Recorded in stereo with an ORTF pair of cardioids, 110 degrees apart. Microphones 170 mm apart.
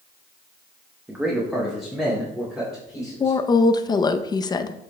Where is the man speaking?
10° right, 0.9 m; by 3.4 s straight ahead, 3.5 m.